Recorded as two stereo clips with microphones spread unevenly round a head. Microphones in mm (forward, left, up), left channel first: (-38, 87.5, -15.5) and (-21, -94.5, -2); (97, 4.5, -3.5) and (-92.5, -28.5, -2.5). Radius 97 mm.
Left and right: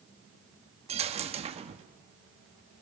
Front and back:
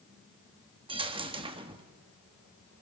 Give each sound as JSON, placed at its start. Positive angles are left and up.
{"t": 0.9, "sound": "a dropped coin", "azimuth_deg": -120, "distance_m": 1.3}